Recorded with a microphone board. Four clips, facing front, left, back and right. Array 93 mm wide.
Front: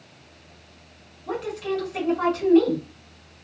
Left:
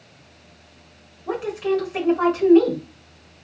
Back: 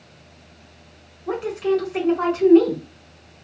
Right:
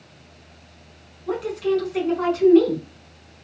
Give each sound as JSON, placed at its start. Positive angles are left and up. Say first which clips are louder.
{"t": 1.3, "sound": "a woman speaking", "louder": "even, back 6 dB", "azimuth_deg": 125, "distance_m": 1.1}